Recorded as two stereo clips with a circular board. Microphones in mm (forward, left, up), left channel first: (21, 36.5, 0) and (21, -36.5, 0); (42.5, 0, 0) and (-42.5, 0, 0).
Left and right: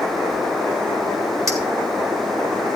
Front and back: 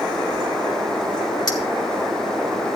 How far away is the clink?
About 1.7 m.